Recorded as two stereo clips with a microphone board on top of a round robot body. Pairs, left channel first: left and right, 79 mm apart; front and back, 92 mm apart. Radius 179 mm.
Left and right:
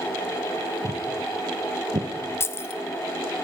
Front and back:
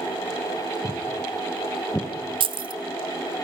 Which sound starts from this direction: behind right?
Footsteps, at 0.8 s.